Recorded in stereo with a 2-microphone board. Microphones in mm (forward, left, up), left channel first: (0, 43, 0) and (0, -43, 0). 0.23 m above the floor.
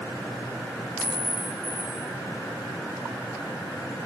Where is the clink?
25° left (ahead or behind), 8.5 m.